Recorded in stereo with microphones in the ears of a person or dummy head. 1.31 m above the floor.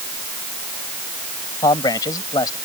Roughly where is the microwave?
I don't hear a microwave.